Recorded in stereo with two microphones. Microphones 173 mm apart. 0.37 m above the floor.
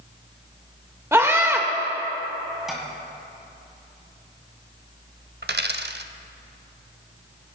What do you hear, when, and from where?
1.1 s a scream: 15° right (ahead or behind), 1.2 m
2.7 s tapping: centre (ahead or behind), 2 m
5.4 s a dropped coin: 65° right (ahead or behind), 0.5 m